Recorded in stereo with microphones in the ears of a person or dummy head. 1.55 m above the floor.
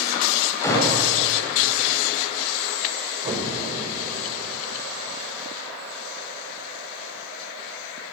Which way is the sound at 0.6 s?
15° left (ahead or behind).